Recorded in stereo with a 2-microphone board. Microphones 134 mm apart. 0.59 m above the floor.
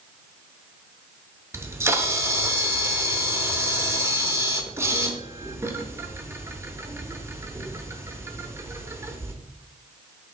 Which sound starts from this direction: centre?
A camera shutter, at 1.5 s.